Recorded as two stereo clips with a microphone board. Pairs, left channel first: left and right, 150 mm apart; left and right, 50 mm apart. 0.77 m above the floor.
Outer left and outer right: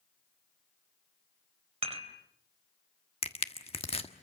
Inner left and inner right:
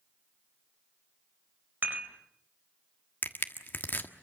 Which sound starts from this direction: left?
Crushing, at 3.2 s.